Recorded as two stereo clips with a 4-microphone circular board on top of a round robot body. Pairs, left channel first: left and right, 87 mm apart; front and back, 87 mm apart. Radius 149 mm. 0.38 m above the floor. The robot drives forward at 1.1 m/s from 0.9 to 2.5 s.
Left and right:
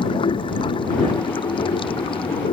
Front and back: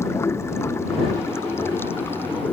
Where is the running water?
60° left; by 2.5 s 70° left.